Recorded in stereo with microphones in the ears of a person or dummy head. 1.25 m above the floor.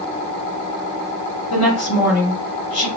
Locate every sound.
1.5 s a woman speaking: 70° left (ahead or behind), 2.5 m